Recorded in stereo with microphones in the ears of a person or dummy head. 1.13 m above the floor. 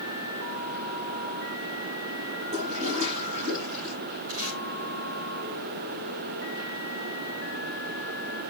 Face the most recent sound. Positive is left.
turn(degrees=-80)